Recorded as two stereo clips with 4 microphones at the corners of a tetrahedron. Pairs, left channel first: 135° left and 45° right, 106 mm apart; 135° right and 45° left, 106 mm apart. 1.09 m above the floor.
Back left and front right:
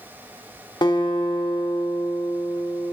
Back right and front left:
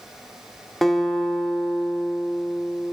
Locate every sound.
0.8 s a guitar: 140° left, 0.8 m